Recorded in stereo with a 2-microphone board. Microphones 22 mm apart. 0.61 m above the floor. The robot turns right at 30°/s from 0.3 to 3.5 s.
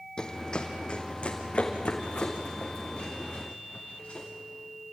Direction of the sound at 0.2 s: 30° left (ahead or behind).